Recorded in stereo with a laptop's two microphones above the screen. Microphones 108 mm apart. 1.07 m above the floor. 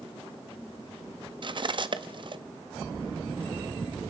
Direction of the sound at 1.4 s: 45° right (ahead or behind).